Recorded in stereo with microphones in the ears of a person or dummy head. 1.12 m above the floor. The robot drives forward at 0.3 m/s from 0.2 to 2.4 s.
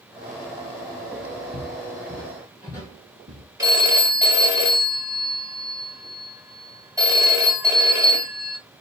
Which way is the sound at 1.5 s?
25° left (ahead or behind).